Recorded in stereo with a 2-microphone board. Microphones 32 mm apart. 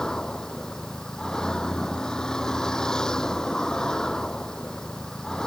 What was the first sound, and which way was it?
A vehicle, 20° left (ahead or behind).